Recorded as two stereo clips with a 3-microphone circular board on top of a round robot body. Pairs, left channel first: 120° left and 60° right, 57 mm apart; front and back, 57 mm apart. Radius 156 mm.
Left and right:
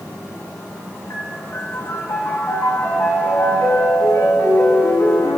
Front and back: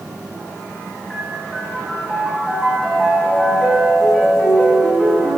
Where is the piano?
90° left, 4.5 m.